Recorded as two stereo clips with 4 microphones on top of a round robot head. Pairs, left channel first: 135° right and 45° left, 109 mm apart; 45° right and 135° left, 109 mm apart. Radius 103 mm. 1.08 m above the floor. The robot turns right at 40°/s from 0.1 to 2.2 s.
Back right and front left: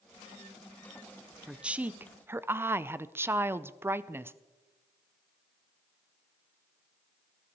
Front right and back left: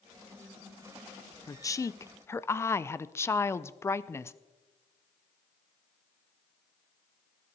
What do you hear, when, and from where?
1.5 s a woman speaking: 35° right, 0.5 m; by 4.3 s 5° right, 0.5 m